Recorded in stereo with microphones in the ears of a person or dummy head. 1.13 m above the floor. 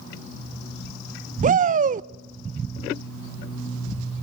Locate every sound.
1.4 s a shout: 40° right (ahead or behind), 0.5 m